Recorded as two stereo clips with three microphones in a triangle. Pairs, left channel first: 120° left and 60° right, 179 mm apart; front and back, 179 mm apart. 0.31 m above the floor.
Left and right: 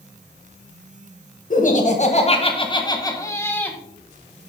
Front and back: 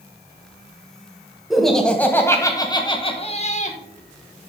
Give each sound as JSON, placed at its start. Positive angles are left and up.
{"t": 1.5, "sound": "laughter", "azimuth_deg": 90, "distance_m": 1.6}